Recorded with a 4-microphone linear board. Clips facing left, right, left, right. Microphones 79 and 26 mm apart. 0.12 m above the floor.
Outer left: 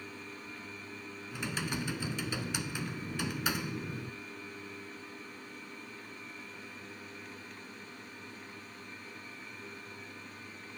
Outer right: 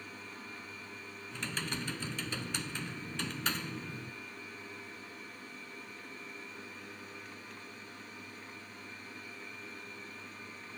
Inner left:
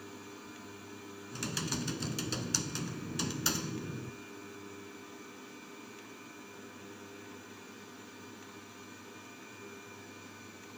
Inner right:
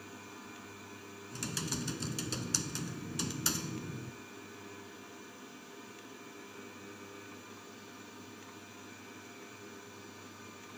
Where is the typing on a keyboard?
10° left (ahead or behind), 1.1 m.